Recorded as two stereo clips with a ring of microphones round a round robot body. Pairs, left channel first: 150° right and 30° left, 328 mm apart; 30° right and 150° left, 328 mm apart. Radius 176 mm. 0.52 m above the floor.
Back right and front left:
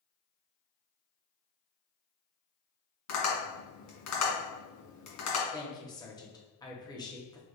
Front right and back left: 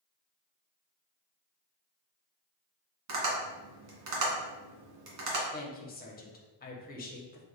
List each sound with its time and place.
3.1 s tapping: 175° left, 1.9 m
5.5 s a woman speaking: 80° right, 0.9 m